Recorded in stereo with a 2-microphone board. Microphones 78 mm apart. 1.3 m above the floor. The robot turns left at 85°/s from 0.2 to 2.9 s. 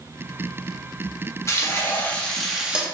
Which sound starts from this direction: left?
Frying, at 1.5 s.